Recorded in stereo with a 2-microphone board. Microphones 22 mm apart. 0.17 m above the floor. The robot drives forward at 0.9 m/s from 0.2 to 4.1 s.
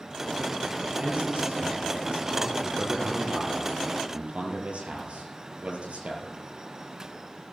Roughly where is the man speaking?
Right.